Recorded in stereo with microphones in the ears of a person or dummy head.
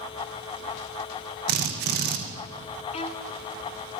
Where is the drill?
50° right (ahead or behind), 2.5 m.